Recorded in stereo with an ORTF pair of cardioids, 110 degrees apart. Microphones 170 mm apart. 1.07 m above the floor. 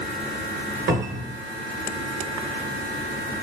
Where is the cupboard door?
70° right, 1.0 m.